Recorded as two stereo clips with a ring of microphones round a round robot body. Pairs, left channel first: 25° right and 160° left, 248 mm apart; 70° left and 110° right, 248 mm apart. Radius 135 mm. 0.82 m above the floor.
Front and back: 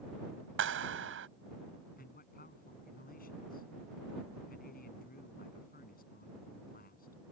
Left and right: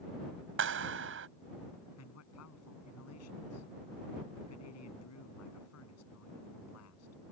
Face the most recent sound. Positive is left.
turn(degrees=35)